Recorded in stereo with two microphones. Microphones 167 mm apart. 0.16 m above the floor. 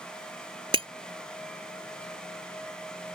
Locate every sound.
0.7 s breaking glass: 35° right (ahead or behind)